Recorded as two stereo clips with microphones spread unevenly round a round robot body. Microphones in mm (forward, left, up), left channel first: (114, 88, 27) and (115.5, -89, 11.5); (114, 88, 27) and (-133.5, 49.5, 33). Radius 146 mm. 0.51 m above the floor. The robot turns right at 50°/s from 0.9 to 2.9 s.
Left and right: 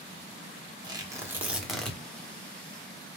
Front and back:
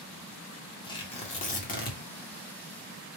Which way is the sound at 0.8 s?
45° right.